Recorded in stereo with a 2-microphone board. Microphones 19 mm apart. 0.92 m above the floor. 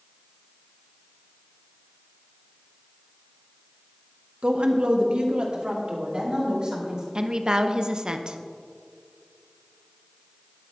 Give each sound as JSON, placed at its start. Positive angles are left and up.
{"t": 4.4, "sound": "a woman speaking", "side_deg": -70, "distance_m": 1.0}
{"t": 7.2, "sound": "a woman speaking", "side_deg": -45, "distance_m": 0.6}